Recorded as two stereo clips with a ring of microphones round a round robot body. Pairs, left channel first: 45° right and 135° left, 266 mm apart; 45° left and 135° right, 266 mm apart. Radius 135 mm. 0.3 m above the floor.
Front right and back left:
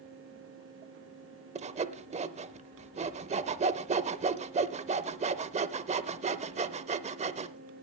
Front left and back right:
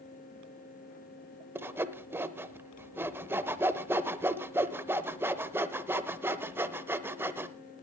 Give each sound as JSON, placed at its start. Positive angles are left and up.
{"t": 1.6, "sound": "sawing", "azimuth_deg": 155, "distance_m": 0.7}